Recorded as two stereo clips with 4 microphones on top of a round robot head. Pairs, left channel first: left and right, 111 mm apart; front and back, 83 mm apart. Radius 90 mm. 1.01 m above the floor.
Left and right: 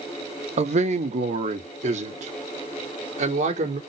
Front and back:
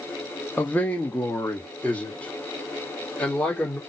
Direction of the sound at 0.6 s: 75° right.